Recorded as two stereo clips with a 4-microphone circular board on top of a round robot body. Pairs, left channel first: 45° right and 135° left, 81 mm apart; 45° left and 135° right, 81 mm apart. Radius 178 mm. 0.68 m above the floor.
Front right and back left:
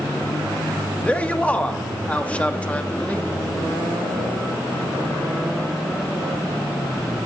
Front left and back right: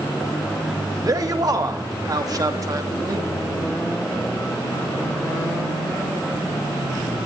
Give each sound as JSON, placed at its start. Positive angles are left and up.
{"t": 1.0, "sound": "a man speaking", "azimuth_deg": -115, "distance_m": 1.6}